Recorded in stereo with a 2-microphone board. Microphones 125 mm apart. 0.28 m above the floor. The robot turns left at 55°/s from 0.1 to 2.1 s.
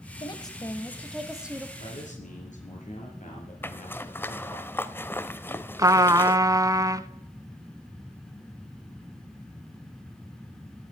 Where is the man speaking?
60° left (ahead or behind), 5 m; by 4.6 s 75° left (ahead or behind), 5 m.